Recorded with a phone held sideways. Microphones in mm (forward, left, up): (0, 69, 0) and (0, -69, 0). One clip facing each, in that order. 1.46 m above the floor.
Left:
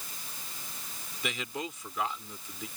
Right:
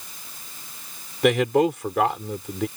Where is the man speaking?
70° right (ahead or behind).